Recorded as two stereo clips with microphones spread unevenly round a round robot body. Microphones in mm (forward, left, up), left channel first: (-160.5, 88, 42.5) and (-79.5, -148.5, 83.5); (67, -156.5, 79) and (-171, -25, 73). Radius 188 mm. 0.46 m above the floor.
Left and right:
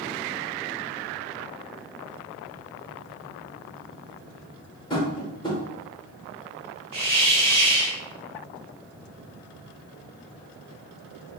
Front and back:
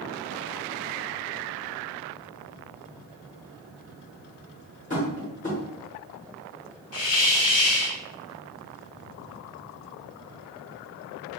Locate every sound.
4.9 s tapping: 35° left, 0.7 m
6.9 s a hiss: 35° right, 1.1 m